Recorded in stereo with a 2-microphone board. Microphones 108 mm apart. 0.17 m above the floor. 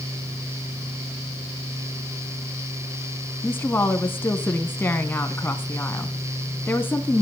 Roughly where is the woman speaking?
Centre.